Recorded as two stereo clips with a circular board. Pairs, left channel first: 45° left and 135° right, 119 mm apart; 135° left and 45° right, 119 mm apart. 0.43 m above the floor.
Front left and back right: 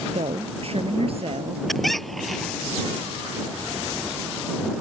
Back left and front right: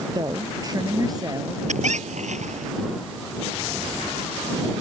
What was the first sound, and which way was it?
A woman speaking, 100° right.